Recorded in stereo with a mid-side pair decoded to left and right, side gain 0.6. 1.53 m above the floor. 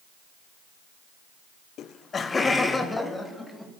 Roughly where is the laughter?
Ahead left.